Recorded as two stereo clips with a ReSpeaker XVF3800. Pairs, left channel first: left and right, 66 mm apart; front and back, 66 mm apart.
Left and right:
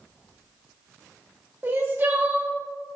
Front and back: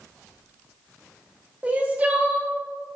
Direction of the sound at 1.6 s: 130° right.